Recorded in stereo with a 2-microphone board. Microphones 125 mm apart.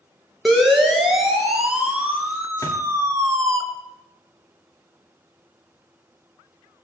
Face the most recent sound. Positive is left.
turn(degrees=25)  # may be behind; listen again after turning